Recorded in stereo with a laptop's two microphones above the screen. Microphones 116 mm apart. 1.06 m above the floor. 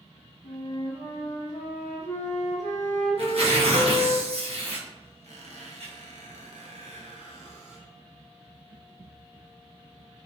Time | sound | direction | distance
0.4 | a flute | 80° left | 0.8 m
3.2 | tearing paper | 60° right (ahead or behind) | 0.7 m
5.2 | a squeak | 80° right | 0.6 m